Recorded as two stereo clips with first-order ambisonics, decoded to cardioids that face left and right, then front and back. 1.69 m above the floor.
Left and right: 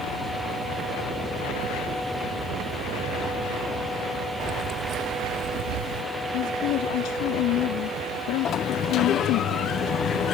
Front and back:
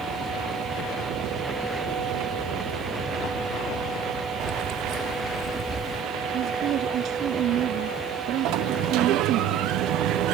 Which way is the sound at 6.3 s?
130° left.